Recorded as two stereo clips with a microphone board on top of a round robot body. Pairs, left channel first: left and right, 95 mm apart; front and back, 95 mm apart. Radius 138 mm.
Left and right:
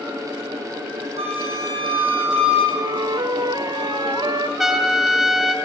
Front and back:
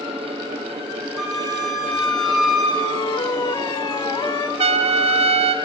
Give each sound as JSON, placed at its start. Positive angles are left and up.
{"t": 1.2, "sound": "a flute", "azimuth_deg": -90, "distance_m": 5.5}
{"t": 2.8, "sound": "a flute", "azimuth_deg": -45, "distance_m": 0.9}
{"t": 4.6, "sound": "a trumpet", "azimuth_deg": -175, "distance_m": 1.4}